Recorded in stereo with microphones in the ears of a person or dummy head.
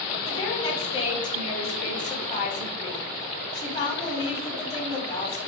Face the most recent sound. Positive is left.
turn(degrees=30)  # may be behind; listen again after turning